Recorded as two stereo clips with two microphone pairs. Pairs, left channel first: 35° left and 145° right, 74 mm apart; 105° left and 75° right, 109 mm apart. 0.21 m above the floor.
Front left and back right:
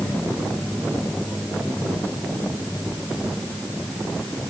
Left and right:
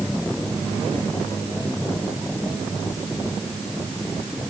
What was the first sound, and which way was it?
Only background noise.